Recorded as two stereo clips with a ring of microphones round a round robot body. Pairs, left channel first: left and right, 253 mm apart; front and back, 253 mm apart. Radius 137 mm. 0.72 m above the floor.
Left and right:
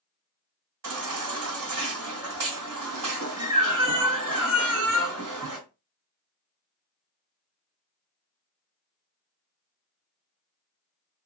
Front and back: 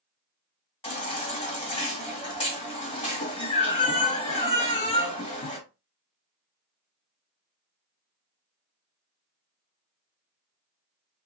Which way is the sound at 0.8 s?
70° right.